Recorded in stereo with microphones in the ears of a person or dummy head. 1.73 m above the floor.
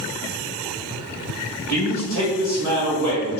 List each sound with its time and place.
1.7 s a man speaking: 25° left (ahead or behind), 1.7 m